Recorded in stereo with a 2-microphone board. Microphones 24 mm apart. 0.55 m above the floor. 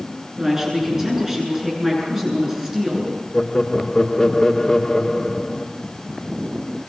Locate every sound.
0.4 s a woman speaking: 20° right (ahead or behind), 8.5 m
3.3 s laughter: 30° left (ahead or behind), 1.3 m